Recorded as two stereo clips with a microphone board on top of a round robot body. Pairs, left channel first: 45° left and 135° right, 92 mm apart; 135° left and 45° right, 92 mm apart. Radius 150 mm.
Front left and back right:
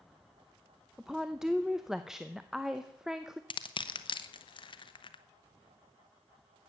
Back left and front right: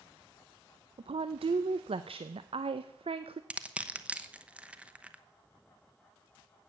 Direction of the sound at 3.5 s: 30° left.